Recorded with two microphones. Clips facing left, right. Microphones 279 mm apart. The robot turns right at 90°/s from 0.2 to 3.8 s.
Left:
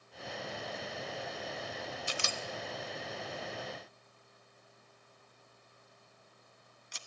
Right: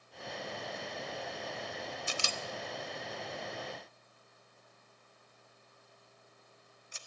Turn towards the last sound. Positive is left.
turn(degrees=80)